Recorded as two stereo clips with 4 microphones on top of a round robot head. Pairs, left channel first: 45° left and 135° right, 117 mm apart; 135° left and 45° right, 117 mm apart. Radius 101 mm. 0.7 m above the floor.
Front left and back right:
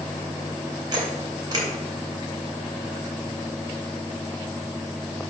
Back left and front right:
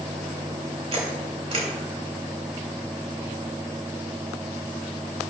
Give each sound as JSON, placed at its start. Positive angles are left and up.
{"t": 0.9, "sound": "a camera shutter", "azimuth_deg": -80, "distance_m": 2.5}